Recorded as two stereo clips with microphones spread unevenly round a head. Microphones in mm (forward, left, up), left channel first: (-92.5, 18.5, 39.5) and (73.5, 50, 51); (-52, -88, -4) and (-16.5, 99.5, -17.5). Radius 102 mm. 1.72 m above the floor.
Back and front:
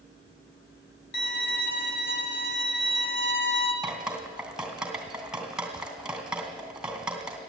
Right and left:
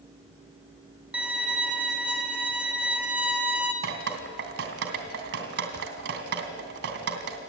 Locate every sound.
1.1 s a violin: 165° left, 2.5 m
3.8 s dripping: 95° left, 2.5 m